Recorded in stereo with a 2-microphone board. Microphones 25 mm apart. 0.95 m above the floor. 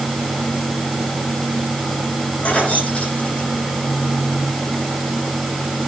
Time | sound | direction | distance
2.4 | keys jangling | 65° left (ahead or behind) | 9.5 m